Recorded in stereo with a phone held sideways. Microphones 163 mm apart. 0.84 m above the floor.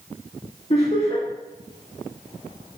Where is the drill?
I don't hear a drill.